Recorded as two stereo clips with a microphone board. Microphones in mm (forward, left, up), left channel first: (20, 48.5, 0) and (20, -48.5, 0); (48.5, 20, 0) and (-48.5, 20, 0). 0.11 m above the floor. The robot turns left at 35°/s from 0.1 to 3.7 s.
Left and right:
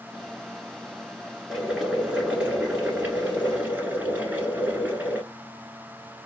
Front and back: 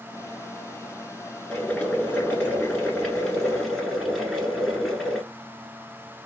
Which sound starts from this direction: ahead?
Boiling, at 1.5 s.